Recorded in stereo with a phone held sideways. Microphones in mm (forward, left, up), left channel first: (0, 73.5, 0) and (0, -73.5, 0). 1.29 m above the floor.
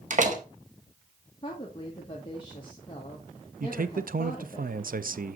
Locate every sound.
0.1 s a door slam: 55° right (ahead or behind), 1.3 m
1.4 s a woman speaking: 30° left (ahead or behind), 1.4 m
3.6 s a man speaking: 70° right (ahead or behind), 0.5 m